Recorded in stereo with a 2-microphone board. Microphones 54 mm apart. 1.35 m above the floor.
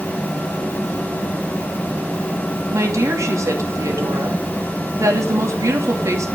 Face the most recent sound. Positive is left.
turn(degrees=-80)